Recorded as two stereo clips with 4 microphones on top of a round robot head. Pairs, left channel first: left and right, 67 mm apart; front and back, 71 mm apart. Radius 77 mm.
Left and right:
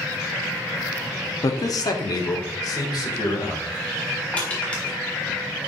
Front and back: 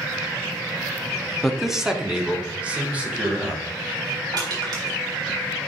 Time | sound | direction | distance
1.4 | a man speaking | 85° left | 1.0 m
4.3 | crushing | 160° left | 4 m